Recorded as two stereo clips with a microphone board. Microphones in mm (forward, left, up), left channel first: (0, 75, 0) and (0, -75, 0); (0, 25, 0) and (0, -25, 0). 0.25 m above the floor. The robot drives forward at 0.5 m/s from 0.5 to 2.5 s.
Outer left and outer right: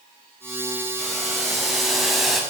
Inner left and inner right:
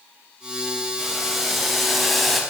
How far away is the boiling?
About 2.0 m.